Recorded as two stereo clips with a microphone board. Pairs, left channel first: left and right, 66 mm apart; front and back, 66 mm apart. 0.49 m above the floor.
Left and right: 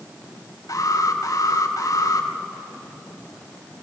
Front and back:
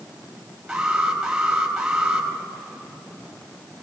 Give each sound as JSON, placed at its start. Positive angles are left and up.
{"t": 0.7, "sound": "an alarm", "azimuth_deg": 100, "distance_m": 4.5}